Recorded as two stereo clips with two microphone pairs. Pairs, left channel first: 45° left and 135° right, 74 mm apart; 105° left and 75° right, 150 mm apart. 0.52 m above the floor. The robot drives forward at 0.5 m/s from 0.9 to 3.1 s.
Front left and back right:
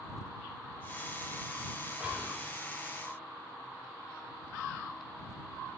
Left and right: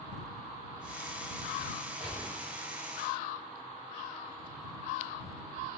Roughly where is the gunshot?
Behind left.